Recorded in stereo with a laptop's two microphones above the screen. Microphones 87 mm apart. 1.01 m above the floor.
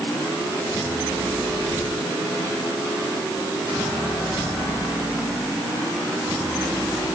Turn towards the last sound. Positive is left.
No sound to turn to.